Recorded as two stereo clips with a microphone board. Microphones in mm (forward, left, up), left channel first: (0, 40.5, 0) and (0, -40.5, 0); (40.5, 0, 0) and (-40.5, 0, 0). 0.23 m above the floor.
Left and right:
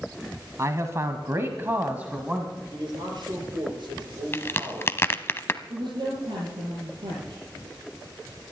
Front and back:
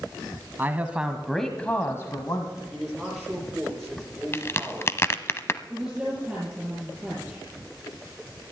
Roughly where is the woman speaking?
Right.